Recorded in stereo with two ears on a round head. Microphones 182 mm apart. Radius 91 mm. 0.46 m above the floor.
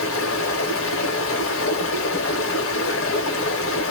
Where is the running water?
75° left (ahead or behind), 0.7 m.